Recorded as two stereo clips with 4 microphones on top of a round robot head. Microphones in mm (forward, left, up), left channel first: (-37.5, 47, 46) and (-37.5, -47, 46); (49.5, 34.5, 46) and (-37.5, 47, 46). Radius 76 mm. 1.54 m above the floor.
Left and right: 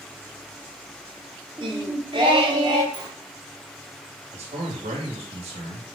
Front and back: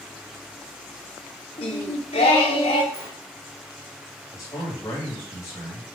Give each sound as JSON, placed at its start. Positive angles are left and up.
{"t": 1.6, "sound": "singing", "azimuth_deg": -35, "distance_m": 0.9}
{"t": 2.9, "sound": "a sliding door", "azimuth_deg": -120, "distance_m": 1.8}
{"t": 4.3, "sound": "a man speaking", "azimuth_deg": -75, "distance_m": 2.5}